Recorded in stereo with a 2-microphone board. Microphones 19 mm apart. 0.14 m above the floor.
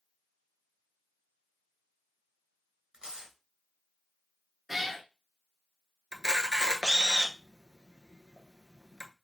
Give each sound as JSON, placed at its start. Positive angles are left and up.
{"t": 2.9, "sound": "tearing paper", "side_deg": -45, "distance_m": 2.0}
{"t": 4.7, "sound": "a cat meowing", "side_deg": -15, "distance_m": 0.7}
{"t": 6.1, "sound": "a camera shutter", "side_deg": -40, "distance_m": 0.7}